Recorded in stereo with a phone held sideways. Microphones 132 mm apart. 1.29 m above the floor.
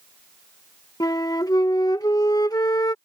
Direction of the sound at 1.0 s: 30° left (ahead or behind).